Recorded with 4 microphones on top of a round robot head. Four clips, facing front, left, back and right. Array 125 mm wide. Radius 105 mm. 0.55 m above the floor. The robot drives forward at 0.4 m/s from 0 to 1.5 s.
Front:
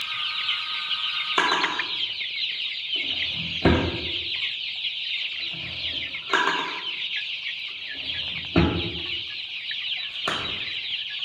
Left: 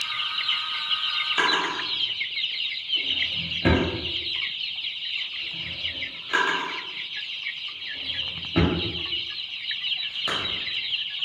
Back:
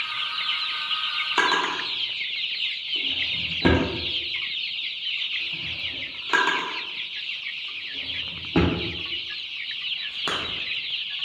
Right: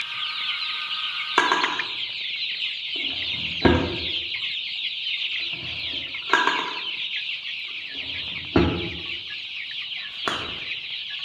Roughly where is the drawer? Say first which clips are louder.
Right 4 dB, even; right.